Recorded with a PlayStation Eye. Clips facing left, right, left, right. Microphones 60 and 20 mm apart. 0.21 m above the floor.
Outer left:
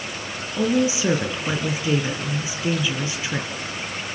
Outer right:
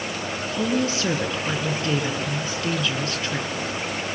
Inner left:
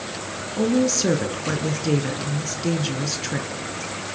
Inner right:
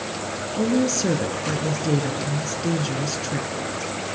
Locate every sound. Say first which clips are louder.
0.6 s a woman speaking: outer left 4 dB, inner left 1 dB; 10° left (ahead or behind), 3 m